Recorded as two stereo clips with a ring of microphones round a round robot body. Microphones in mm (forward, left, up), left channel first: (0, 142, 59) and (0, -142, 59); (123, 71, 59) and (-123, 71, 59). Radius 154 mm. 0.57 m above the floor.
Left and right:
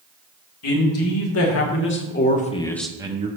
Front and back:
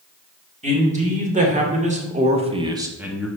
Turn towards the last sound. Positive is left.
turn(degrees=-85)